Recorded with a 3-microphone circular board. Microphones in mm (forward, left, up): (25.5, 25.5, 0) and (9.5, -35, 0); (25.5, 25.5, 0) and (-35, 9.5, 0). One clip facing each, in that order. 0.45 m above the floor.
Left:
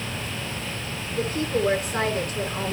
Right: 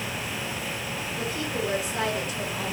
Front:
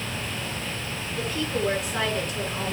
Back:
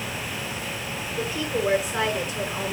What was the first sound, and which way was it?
A woman speaking, 110° left.